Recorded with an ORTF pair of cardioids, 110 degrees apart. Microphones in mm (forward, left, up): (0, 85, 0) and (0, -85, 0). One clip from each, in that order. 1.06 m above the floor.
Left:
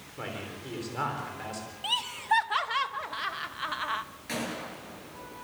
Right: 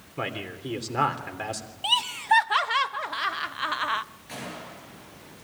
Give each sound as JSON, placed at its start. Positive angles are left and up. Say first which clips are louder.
{"t": 0.2, "sound": "a man speaking", "louder": "right 6 dB", "azimuth_deg": -50, "distance_m": 3.5}
{"t": 1.8, "sound": "laughter", "louder": "right 5 dB", "azimuth_deg": -25, "distance_m": 0.7}
{"t": 4.3, "sound": "a gunshot", "louder": "left 3 dB", "azimuth_deg": 45, "distance_m": 9.0}